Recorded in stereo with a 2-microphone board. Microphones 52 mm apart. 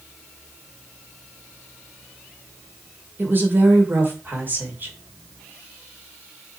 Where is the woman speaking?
40° right (ahead or behind), 2 m.